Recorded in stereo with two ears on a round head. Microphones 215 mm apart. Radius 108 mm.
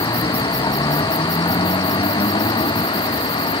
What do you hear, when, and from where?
0.0 s a vehicle: 20° left (ahead or behind)